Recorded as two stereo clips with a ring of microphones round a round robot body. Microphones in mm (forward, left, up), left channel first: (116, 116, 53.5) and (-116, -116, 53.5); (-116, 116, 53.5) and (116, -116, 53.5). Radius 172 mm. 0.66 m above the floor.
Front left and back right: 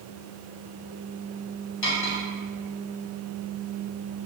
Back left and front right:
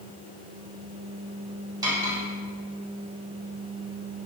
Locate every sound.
1.8 s cutlery clinking: 35° left, 2.5 m